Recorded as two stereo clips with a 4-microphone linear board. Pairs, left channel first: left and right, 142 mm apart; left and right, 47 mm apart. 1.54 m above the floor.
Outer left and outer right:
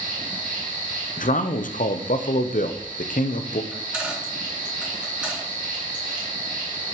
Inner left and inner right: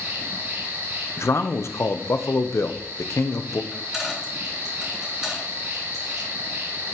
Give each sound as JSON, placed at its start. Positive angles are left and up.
{"t": 0.0, "sound": "an insect", "side_deg": -65, "distance_m": 2.0}
{"t": 1.2, "sound": "a man speaking", "side_deg": 70, "distance_m": 0.6}
{"t": 3.7, "sound": "a dropped coin", "side_deg": -5, "distance_m": 3.0}